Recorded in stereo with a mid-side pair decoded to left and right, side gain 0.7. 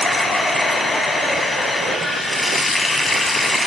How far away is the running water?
About 5.5 m.